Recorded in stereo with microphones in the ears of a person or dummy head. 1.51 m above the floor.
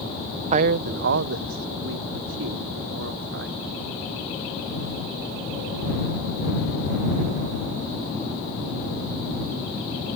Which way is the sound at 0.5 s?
40° right (ahead or behind).